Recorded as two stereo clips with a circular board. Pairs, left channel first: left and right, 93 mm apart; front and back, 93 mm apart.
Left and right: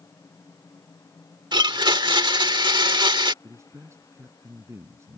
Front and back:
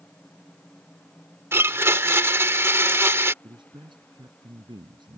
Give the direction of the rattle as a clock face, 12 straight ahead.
No rattle in this recording.